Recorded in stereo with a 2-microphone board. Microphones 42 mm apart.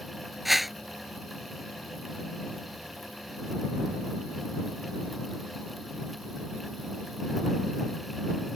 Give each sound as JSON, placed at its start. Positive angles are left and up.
{"t": 0.5, "sound": "a whoosh", "side_deg": 0}